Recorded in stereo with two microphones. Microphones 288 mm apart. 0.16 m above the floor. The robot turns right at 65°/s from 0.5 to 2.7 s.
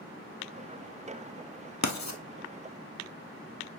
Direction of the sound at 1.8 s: 85° left.